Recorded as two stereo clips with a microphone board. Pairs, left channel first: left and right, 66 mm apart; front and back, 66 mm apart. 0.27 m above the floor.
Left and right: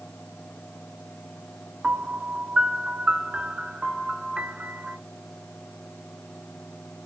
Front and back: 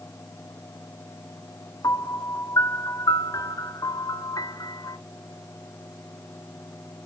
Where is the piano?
15° right, 0.8 m.